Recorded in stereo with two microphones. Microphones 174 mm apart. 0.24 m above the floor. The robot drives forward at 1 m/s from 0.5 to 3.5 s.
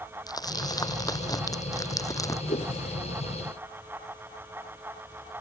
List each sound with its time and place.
0.3 s crumpling: 20° left (ahead or behind)
2.5 s a whoosh: 50° left (ahead or behind); by 2.7 s 40° left (ahead or behind)